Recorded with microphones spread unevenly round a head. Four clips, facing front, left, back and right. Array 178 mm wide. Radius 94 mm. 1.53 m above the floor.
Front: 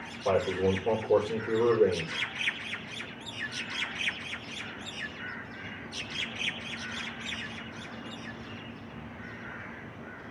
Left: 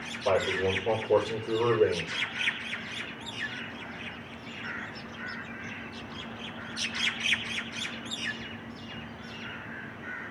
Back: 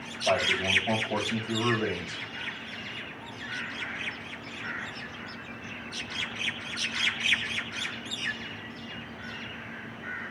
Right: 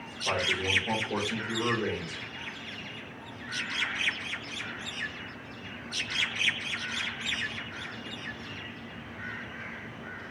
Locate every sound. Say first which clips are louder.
0.2 s a man speaking: left 5 dB, front 1 dB; 30° left, 5 m